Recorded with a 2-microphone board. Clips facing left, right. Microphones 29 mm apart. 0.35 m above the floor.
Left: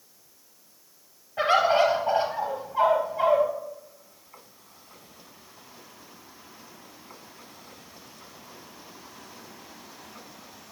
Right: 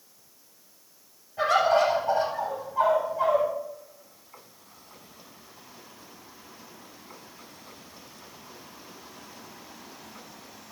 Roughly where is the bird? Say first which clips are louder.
Left 1 dB; left.